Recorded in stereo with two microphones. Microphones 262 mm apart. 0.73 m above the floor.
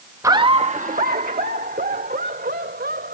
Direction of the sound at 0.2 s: 10° right (ahead or behind).